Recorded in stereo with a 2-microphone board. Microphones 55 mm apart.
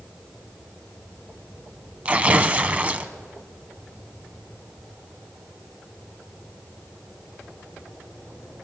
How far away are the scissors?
No scissors in this recording.